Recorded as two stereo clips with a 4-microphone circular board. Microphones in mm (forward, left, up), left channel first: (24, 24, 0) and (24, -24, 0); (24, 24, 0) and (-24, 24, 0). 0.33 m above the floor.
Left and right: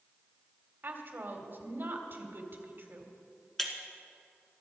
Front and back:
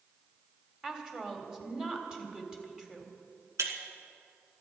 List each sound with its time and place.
0.8 s a woman speaking: 110° right, 1.9 m
3.6 s breaking glass: 175° left, 1.6 m